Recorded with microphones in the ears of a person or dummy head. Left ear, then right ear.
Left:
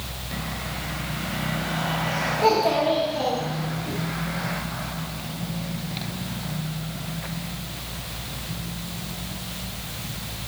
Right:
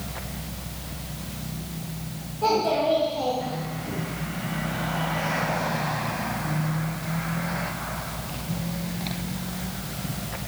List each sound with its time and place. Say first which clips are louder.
2.4 s a child speaking: left 1 dB; 30° left (ahead or behind), 2 m